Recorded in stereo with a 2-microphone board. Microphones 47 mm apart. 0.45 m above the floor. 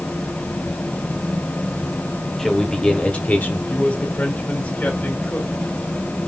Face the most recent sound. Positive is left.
turn(degrees=45)  # may be behind; listen again after turning